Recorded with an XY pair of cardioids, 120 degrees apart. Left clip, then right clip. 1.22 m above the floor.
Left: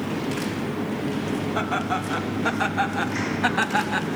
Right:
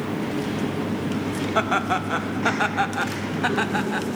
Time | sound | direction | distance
1.6 | laughter | 40° right | 1.7 m